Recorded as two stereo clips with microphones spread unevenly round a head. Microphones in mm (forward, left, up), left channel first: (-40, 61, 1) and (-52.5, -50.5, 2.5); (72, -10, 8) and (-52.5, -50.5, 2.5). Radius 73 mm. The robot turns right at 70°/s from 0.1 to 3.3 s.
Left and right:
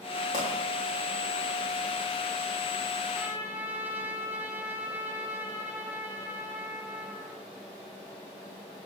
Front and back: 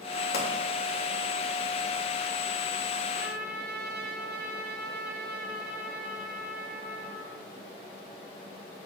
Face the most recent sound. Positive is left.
turn(degrees=-170)